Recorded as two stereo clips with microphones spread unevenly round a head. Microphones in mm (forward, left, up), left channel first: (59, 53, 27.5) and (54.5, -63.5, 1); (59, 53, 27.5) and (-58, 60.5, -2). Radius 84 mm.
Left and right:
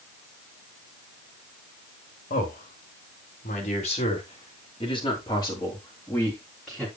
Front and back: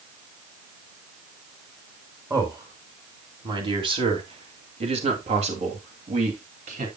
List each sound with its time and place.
2.3 s a man speaking: 120° left, 3 m; by 6.9 s straight behind, 3 m